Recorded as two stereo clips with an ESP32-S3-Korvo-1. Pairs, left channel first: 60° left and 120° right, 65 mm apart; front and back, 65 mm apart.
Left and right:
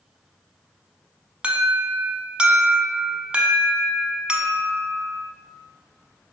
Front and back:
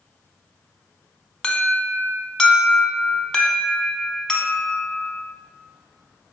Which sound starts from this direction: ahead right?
An alarm, at 1.4 s.